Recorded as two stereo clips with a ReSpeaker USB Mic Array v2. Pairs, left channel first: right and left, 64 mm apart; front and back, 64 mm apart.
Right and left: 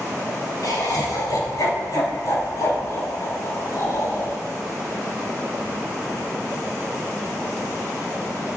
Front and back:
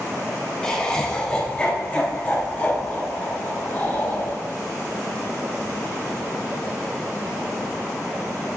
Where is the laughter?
80° right, 3.5 m; by 4.4 s 60° right, 6 m.